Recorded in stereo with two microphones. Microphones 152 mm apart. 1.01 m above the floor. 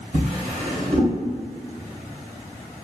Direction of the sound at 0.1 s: 65° right (ahead or behind).